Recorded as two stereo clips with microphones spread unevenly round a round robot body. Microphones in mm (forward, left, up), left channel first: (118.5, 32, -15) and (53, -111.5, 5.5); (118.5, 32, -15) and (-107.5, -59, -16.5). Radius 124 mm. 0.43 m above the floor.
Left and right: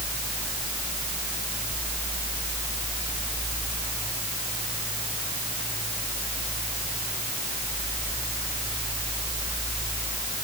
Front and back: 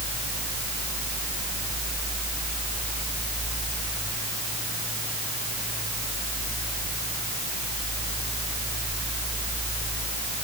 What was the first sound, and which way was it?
Only background noise.